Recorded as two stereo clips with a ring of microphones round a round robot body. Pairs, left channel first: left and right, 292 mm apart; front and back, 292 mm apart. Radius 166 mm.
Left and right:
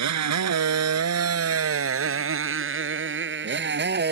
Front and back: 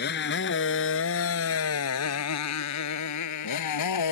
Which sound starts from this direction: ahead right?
A motorcycle, at 0.0 s.